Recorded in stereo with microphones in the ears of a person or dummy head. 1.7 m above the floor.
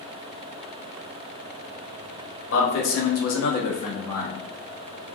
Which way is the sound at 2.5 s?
75° left (ahead or behind).